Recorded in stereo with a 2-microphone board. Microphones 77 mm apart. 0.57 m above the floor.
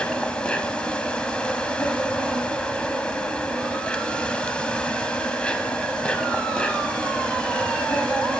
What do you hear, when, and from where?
0.0 s an insect: 10° left (ahead or behind), 1.2 m